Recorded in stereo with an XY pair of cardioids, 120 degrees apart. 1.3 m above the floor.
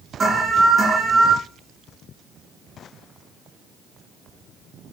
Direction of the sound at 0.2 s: 30° right.